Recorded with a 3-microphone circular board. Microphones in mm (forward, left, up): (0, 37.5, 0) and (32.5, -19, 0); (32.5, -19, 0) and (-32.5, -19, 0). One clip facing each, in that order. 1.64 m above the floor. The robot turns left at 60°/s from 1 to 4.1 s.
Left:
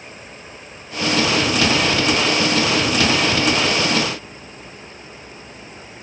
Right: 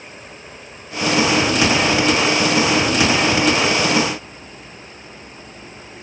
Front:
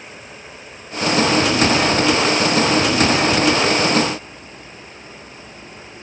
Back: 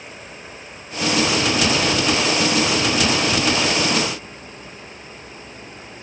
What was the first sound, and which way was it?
Only background noise.